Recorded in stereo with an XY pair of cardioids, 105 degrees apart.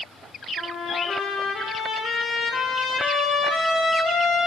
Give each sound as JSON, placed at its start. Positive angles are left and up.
{"t": 0.6, "sound": "a trumpet", "azimuth_deg": 60, "distance_m": 1.8}